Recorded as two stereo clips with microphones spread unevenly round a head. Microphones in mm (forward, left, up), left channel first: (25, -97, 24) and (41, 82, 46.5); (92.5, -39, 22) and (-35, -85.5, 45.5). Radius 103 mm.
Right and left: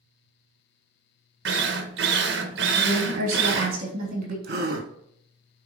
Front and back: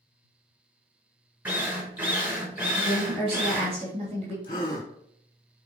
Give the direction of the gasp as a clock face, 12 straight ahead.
9 o'clock.